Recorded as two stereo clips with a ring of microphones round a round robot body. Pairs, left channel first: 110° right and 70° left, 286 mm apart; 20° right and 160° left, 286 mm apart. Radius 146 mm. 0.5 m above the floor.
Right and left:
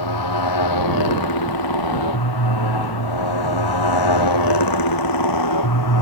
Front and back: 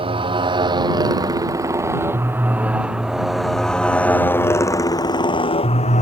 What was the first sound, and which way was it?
A motorcycle, 130° right.